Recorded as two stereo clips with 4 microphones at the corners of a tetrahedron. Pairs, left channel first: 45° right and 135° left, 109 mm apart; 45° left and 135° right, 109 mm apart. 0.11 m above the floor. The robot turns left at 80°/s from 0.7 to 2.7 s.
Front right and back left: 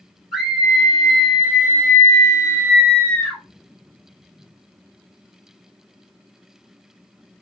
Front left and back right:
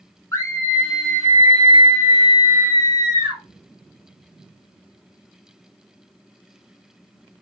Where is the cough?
No cough in this recording.